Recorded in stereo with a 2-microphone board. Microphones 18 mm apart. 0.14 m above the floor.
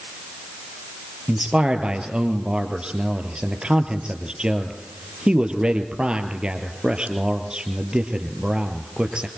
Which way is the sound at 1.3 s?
55° right (ahead or behind).